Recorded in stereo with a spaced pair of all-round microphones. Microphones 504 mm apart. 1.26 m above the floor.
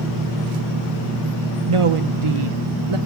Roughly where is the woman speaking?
Right.